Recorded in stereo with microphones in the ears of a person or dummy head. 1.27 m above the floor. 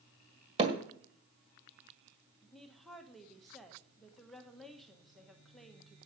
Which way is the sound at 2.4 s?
Centre (ahead or behind).